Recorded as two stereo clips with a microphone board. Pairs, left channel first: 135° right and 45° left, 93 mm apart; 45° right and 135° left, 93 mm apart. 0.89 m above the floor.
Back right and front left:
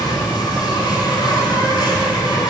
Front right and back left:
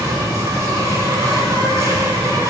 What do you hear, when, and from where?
0.0 s an insect: 175° right, 2 m